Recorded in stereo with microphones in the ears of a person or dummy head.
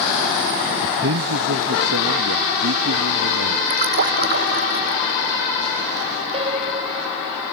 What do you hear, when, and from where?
0.8 s a man speaking: 60° right (ahead or behind); by 3.6 s 80° right
3.7 s a splash: 50° right (ahead or behind)
6.3 s a piano: 30° right (ahead or behind)